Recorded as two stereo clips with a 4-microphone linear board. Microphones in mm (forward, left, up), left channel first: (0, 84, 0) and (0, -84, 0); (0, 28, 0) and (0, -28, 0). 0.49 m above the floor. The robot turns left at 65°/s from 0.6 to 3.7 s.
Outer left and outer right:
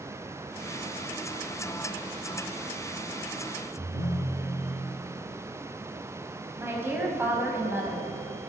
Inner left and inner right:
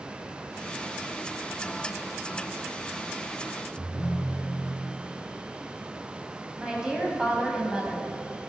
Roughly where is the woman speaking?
Centre.